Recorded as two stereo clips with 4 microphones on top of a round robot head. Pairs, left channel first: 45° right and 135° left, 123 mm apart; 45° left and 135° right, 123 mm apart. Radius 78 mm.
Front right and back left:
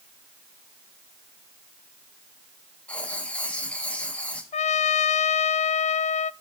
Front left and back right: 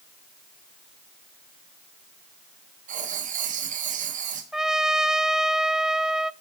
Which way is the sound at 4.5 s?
50° right.